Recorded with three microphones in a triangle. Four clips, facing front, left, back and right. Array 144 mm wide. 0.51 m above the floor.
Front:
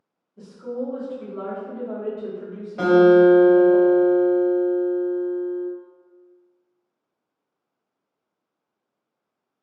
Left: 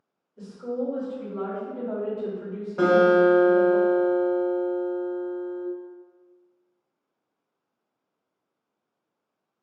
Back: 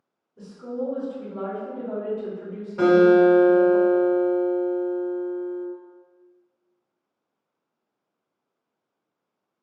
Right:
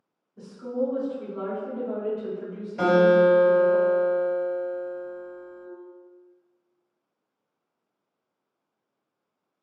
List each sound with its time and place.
0.4 s a woman speaking: 115° right, 1.3 m; by 3.8 s 100° left, 1.8 m
2.8 s a guitar: 90° left, 1.9 m